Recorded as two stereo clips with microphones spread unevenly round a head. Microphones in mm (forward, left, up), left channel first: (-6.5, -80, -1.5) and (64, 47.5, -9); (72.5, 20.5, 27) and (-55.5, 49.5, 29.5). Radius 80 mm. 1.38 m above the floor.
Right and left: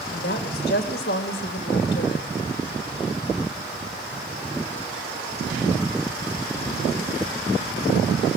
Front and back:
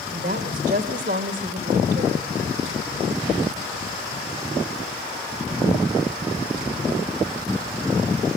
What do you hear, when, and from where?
0.1 s a woman speaking: 155° right, 2 m